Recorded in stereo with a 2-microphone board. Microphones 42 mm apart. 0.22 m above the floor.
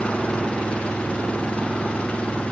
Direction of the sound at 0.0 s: 25° left (ahead or behind).